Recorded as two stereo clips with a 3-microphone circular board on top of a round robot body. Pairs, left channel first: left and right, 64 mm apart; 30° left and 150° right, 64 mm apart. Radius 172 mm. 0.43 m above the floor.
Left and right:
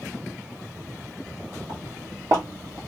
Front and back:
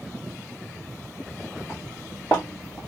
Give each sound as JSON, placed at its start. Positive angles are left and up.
{"t": 1.7, "sound": "footsteps", "azimuth_deg": -55, "distance_m": 1.8}